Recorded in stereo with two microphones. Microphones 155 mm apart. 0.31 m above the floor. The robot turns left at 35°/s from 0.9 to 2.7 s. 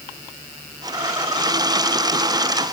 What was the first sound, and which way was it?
Only background noise.